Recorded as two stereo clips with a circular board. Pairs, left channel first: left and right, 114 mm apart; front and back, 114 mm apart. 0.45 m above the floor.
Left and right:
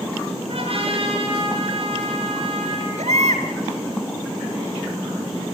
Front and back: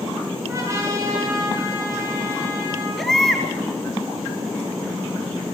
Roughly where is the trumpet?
Behind right.